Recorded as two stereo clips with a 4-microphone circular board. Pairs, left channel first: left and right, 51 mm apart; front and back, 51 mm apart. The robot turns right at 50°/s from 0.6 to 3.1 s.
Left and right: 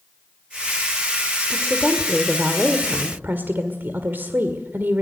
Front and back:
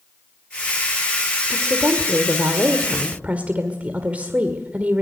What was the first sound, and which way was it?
A woman speaking, 155° left.